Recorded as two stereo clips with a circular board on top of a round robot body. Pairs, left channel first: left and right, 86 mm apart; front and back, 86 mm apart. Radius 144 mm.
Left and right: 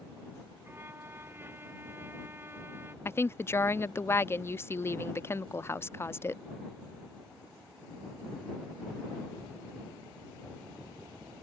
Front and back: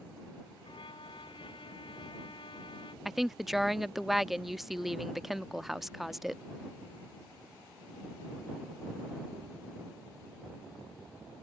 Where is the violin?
25° right.